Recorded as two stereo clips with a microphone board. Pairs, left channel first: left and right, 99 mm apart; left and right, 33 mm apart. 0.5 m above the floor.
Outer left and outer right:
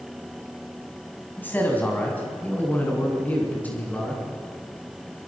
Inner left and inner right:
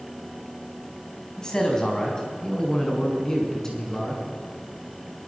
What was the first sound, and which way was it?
A man speaking, 20° left (ahead or behind).